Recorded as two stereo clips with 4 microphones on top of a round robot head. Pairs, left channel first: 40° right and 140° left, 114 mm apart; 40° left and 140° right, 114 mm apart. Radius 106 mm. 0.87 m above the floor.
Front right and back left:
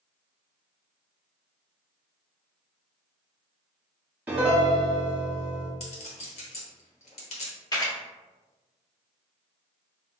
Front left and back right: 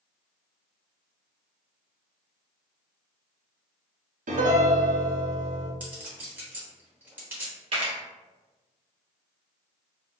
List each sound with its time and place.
4.3 s a piano: 145° right, 0.8 m
5.8 s a clink: 65° right, 1.1 m
7.7 s a camera shutter: 100° right, 0.7 m